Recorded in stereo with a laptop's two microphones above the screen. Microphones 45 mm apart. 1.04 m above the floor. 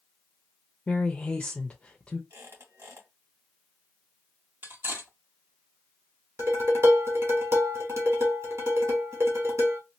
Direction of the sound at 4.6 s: 45° right (ahead or behind).